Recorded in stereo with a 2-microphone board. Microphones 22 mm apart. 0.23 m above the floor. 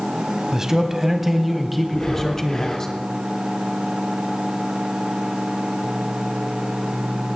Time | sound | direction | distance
0.5 | a man speaking | 25° right (ahead or behind) | 1.1 m
1.9 | breathing | 25° left (ahead or behind) | 1.7 m